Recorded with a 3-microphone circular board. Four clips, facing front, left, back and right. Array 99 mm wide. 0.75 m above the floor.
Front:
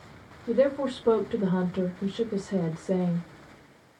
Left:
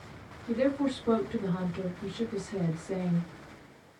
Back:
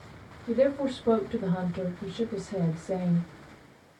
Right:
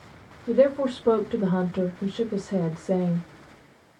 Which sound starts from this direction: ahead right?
A woman speaking, at 0.5 s.